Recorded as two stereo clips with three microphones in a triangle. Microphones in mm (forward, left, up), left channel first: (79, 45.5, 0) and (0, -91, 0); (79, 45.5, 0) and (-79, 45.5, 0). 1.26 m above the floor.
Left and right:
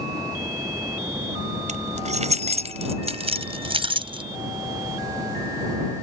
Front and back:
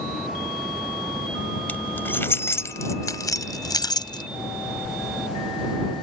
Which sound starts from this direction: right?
Keys jangling, at 1.7 s.